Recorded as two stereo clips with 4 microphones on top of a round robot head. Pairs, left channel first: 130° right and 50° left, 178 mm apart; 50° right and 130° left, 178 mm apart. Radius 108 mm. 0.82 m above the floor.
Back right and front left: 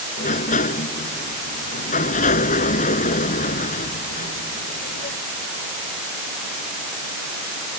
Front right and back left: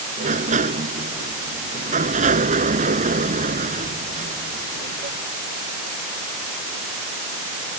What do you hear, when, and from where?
0.2 s a sliding door: straight behind